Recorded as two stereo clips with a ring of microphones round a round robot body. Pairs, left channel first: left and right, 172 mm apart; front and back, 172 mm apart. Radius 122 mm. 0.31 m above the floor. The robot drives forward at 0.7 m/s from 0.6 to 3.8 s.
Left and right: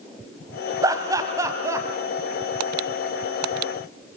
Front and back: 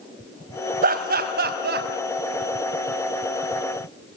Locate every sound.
0.8 s laughter: 160° right, 2.5 m; by 1.9 s 165° right, 3 m